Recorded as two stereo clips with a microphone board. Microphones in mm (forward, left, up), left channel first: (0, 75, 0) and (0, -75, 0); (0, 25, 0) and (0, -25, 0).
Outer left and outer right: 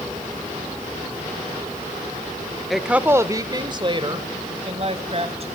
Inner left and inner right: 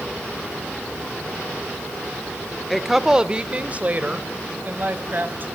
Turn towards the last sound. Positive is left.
turn(degrees=-45)  # may be behind; listen again after turning